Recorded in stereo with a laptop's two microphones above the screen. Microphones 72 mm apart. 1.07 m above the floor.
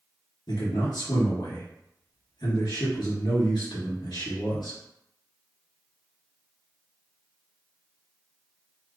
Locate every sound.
0.5 s a man speaking: 80° left, 1.4 m